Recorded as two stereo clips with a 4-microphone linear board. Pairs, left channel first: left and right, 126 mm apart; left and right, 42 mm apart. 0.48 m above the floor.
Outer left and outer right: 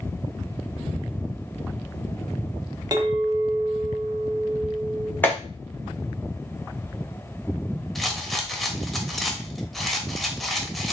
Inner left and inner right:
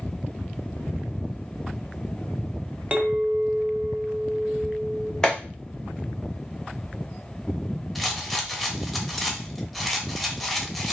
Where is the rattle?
Centre (ahead or behind), 0.7 m.